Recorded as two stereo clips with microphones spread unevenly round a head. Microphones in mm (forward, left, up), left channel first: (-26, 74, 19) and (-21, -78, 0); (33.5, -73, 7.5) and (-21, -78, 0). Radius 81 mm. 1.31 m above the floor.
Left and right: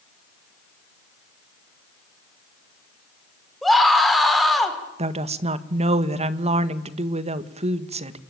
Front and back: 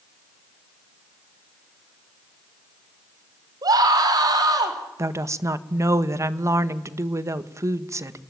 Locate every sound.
3.6 s a scream: straight behind, 5 m
5.0 s a woman speaking: 140° right, 1.5 m